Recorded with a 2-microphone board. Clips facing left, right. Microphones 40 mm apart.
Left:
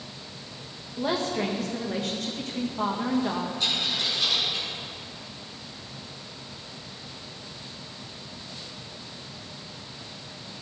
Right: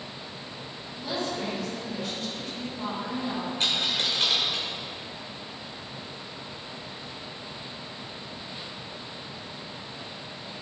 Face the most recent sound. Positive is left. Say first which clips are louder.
# right 3 dB
turn(degrees=-60)  # may be behind; listen again after turning